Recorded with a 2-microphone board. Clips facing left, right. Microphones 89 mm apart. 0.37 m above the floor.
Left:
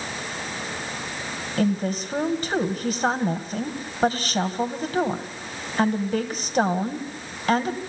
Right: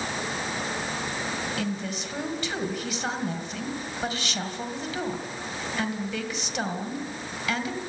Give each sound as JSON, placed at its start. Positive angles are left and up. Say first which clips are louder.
{"t": 1.6, "sound": "a woman speaking", "louder": "left 7 dB", "side_deg": 40, "distance_m": 2.0}